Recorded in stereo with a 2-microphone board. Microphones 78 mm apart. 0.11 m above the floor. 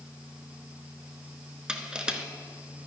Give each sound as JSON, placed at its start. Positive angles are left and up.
{"t": 1.7, "sound": "crushing", "side_deg": -10, "distance_m": 0.7}